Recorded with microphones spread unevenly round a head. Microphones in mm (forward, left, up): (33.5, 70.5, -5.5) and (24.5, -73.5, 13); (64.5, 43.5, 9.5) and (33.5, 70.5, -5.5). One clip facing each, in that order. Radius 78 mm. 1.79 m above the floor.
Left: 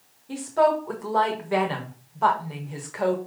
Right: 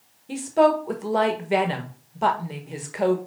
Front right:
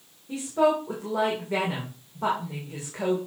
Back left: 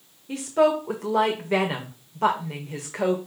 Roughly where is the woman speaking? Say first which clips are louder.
Right 2 dB, back left 2 dB; behind right.